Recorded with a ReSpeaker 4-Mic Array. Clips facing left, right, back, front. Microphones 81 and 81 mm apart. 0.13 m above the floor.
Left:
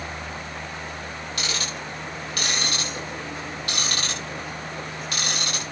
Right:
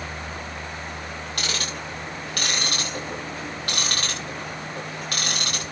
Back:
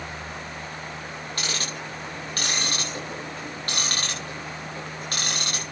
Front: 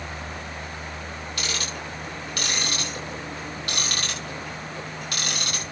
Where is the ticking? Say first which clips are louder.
Right 1 dB, even; 130° right, 7.5 m.